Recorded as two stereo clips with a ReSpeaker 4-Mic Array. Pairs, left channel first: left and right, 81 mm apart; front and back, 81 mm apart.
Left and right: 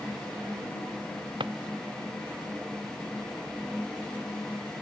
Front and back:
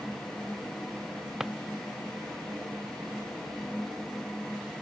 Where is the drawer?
95° right.